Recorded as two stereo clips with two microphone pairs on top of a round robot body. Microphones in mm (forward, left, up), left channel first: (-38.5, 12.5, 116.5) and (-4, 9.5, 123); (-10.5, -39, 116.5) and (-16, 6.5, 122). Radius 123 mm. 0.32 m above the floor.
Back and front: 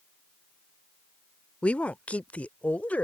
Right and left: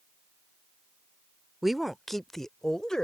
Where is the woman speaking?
170° right; by 3.0 s 155° right.